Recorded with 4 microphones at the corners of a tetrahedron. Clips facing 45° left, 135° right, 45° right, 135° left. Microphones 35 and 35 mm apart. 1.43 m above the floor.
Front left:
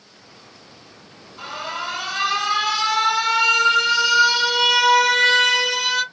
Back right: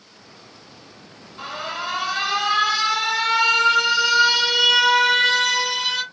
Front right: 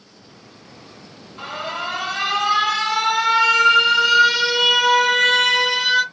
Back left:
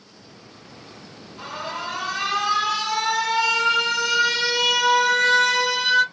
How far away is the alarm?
About 1.3 m.